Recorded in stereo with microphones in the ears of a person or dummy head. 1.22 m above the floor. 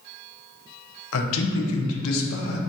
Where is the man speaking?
75° left (ahead or behind), 0.5 m.